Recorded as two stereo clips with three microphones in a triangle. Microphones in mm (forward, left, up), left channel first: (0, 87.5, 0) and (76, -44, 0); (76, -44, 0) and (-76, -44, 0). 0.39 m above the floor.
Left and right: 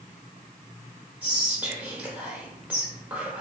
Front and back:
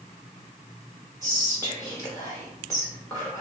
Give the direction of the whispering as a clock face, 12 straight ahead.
12 o'clock.